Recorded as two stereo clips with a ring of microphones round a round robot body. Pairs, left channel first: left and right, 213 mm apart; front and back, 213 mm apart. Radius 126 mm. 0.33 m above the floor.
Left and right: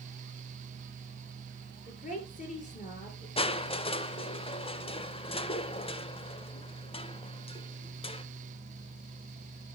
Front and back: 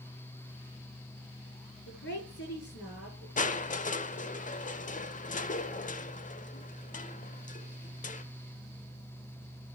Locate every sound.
1.9 s a woman speaking: 35° left, 6.5 m
3.4 s crushing: 35° left, 0.9 m